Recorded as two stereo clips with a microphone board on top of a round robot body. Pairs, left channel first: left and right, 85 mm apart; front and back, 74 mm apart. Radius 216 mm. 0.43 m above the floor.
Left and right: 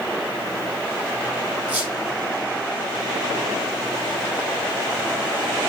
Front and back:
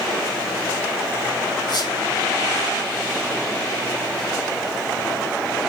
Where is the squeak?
20° right, 4 m.